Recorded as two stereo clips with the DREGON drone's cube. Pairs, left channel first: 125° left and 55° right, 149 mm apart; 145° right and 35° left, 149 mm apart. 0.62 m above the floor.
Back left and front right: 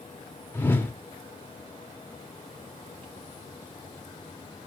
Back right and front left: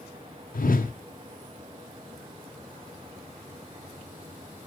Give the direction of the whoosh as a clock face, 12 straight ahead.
5 o'clock.